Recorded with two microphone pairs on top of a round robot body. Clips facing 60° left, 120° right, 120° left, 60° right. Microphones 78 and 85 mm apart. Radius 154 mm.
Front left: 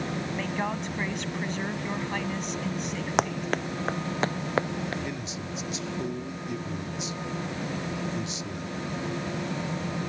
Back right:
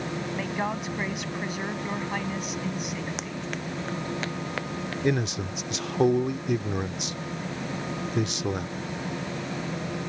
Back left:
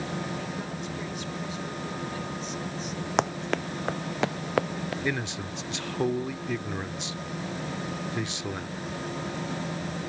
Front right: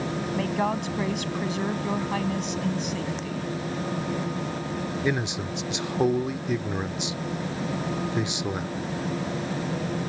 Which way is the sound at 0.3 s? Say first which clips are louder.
Back right 1 dB, front right 9 dB; 40° right.